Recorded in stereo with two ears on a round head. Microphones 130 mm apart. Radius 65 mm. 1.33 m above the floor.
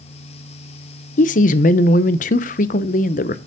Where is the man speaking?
60° left (ahead or behind), 0.5 m.